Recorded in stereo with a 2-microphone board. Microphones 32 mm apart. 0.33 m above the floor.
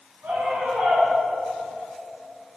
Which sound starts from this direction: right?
A scream, at 0.2 s.